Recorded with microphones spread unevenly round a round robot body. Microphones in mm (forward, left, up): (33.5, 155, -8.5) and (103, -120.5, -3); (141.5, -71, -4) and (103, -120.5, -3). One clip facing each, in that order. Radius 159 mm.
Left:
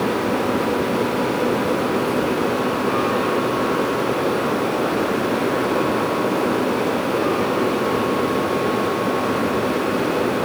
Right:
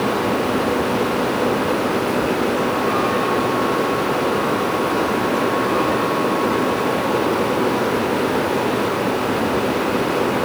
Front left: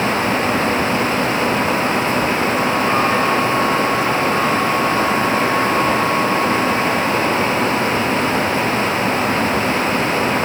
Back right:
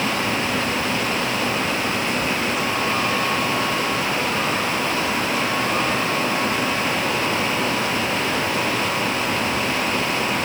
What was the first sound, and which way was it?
Only background noise.